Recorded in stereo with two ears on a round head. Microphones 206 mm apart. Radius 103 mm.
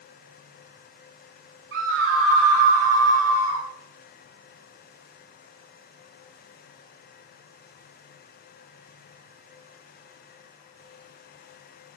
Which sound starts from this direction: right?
A scream, at 1.7 s.